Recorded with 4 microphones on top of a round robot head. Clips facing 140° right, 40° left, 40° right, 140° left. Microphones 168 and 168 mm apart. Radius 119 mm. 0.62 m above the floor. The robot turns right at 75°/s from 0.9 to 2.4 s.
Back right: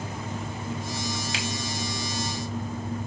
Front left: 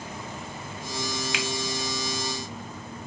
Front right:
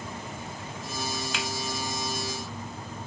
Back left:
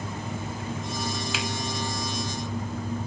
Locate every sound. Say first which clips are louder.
1.3 s a finger snap: front left 1 dB, back left 2 dB; 135° right, 0.9 m; by 1.5 s 130° right, 0.9 m